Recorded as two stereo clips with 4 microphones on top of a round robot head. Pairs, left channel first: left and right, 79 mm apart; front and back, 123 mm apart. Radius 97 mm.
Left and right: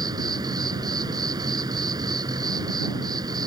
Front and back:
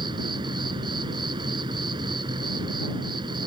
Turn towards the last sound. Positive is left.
turn(degrees=-125)